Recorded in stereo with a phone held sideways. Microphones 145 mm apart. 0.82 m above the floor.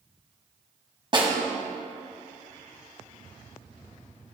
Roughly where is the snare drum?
Right.